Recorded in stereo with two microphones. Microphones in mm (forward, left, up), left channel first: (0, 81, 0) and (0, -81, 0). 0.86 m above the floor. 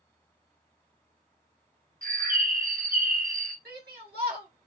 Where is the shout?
75° right (ahead or behind), 1.5 m.